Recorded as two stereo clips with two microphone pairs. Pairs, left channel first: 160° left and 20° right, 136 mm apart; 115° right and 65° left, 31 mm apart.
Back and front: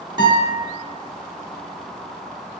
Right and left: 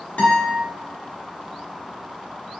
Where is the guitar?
75° right, 1.3 m.